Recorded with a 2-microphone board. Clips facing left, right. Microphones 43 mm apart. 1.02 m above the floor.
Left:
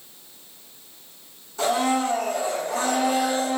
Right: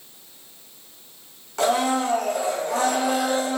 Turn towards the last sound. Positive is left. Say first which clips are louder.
# right 1 dB
turn(degrees=-75)  # may be behind; listen again after turning